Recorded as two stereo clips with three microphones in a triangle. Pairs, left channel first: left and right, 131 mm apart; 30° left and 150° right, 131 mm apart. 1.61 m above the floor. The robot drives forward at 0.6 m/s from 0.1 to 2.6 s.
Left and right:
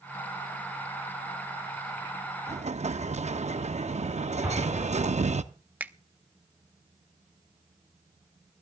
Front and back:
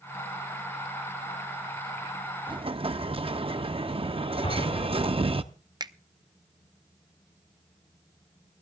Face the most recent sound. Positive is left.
turn(degrees=-160)